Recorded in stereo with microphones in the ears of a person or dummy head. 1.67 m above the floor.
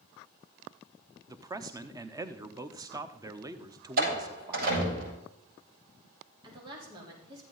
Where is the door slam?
60° right (ahead or behind), 7 m.